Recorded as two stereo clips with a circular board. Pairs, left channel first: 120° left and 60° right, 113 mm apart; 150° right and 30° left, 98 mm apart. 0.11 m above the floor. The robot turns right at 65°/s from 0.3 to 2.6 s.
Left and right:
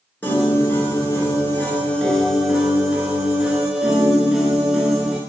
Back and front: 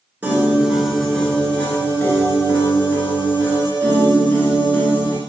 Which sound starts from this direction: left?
A piano, at 0.2 s.